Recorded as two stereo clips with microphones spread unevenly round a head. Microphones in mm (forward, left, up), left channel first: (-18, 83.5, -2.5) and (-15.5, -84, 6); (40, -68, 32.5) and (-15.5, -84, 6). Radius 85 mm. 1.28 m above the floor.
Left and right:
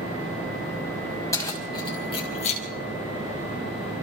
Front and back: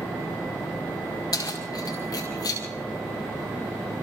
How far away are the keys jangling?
About 5 m.